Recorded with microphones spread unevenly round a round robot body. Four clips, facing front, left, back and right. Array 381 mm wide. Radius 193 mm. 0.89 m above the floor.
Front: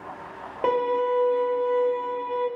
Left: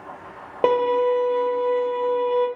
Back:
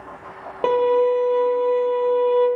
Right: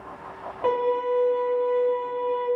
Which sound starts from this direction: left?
A violin, at 0.6 s.